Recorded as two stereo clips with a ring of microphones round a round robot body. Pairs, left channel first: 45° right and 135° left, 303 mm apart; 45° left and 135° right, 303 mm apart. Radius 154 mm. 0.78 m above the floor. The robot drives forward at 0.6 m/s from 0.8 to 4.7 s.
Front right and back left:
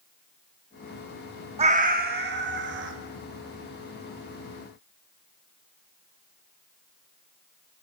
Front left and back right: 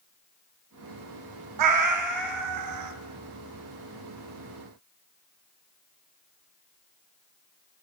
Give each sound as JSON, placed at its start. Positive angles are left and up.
{"t": 1.6, "sound": "a cat meowing", "azimuth_deg": -155, "distance_m": 0.5}